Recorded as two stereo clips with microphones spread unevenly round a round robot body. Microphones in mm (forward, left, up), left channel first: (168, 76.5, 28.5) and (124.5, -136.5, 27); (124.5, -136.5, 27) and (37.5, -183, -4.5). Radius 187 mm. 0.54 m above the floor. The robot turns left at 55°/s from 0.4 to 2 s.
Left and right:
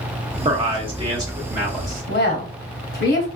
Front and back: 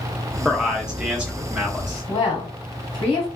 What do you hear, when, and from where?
0.5 s a man speaking: 110° right, 0.9 m; by 2.0 s 160° left, 0.9 m
2.1 s a woman speaking: 70° left, 1.1 m